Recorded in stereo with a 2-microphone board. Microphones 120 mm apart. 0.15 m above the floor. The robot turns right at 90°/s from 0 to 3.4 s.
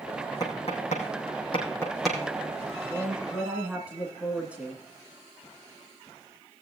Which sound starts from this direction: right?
A woman speaking, at 2.9 s.